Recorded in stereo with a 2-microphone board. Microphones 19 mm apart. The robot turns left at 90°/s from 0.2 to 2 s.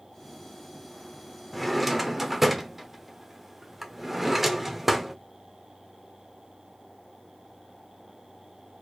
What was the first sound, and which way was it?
A drawer, 5° left (ahead or behind).